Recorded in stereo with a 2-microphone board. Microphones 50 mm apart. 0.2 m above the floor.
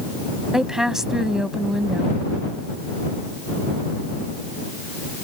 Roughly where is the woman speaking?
Centre.